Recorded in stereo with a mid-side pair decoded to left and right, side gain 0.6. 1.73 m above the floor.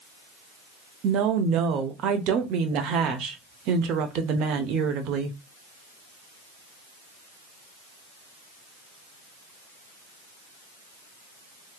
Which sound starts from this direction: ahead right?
A woman speaking, at 1.0 s.